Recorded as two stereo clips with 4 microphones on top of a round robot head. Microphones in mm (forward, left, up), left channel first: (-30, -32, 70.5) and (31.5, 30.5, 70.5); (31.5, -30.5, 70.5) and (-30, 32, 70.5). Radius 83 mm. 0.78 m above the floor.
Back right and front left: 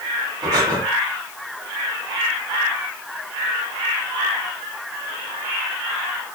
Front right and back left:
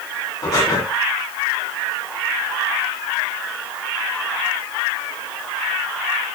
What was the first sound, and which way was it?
Breathing, 5° left.